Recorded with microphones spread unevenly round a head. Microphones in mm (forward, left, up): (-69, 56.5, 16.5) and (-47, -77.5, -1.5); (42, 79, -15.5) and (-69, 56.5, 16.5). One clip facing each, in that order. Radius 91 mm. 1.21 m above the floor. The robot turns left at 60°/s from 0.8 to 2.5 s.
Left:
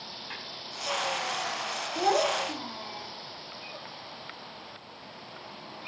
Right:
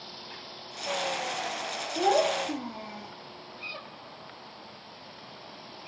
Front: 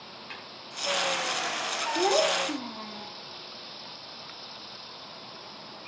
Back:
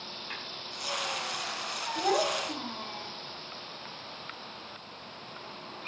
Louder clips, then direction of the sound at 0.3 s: Left 2 dB, back 1 dB; 55° left.